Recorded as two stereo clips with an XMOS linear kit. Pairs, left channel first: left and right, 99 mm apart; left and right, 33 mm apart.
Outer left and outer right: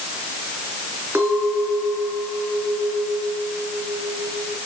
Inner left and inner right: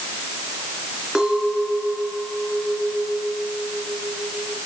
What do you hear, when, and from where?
1.1 s a clink: 20° right (ahead or behind), 4.5 m